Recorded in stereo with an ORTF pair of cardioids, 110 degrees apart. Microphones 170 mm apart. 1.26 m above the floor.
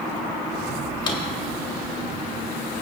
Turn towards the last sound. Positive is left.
turn(degrees=30)